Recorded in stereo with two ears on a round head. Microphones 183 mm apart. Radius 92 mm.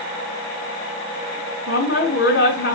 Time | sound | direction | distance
1.7 | a woman speaking | 55° left (ahead or behind) | 3 m